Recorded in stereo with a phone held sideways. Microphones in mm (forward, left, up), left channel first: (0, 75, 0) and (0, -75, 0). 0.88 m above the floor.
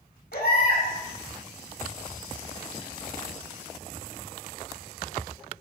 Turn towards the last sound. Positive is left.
turn(degrees=80)